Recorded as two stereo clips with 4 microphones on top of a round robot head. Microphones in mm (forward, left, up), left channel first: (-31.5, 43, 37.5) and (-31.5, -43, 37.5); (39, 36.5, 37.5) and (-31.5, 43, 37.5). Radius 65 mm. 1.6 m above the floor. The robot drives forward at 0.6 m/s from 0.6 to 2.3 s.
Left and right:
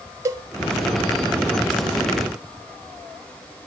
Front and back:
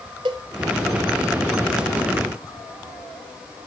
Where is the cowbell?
145° right, 0.8 m.